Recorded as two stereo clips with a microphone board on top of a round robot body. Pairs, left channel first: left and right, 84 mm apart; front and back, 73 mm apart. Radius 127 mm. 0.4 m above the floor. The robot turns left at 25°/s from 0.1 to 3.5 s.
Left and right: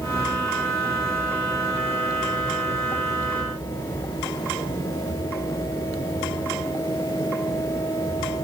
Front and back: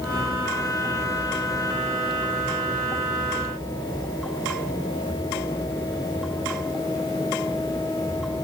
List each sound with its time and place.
Only background noise.